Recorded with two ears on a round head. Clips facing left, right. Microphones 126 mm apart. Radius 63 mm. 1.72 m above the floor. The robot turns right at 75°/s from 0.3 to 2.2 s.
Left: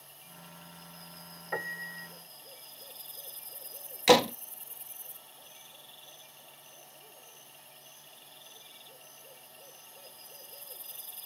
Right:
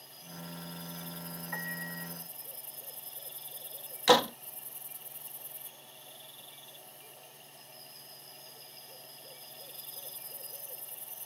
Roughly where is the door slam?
Centre.